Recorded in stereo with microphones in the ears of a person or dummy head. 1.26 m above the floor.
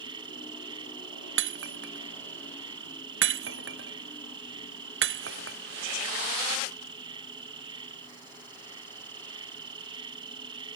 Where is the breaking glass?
75° right (ahead or behind).